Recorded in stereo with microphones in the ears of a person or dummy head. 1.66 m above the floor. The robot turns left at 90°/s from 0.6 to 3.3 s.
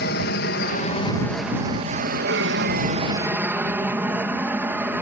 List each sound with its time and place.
0.0 s an aircraft: 70° left; by 5.0 s 170° right